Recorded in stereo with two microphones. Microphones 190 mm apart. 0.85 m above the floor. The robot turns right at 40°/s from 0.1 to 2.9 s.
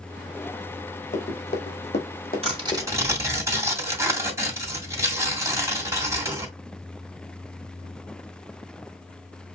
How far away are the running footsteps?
About 2 m.